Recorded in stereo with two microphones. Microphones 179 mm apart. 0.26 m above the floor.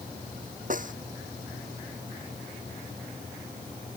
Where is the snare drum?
55° right (ahead or behind).